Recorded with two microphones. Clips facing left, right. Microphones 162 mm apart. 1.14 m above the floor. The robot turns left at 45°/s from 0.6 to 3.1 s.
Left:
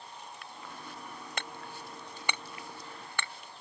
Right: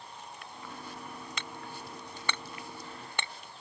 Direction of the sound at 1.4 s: 55° left (ahead or behind).